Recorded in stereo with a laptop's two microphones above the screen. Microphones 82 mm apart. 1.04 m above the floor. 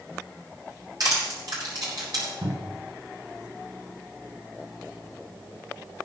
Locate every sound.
1.0 s crushing: 60° right (ahead or behind), 4.5 m
2.4 s a cupboard door: 65° right (ahead or behind), 7 m